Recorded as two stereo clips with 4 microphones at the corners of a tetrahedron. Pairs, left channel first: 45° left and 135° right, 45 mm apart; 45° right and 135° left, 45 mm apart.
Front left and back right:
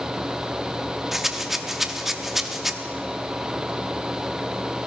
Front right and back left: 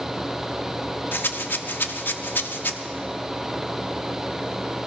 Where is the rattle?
50° right, 0.7 m.